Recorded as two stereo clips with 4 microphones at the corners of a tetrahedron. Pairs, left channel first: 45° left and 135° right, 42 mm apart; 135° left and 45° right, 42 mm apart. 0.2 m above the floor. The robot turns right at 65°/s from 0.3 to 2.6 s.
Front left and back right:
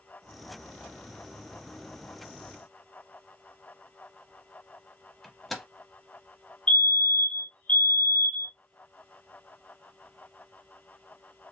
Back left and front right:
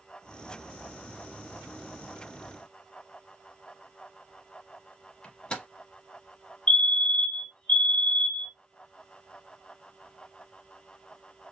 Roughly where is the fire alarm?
Left.